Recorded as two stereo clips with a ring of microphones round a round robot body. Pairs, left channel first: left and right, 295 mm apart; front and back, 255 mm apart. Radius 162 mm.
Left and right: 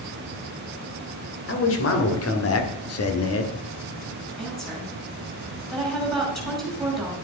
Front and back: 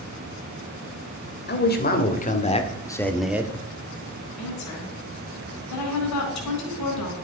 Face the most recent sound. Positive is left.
turn(degrees=0)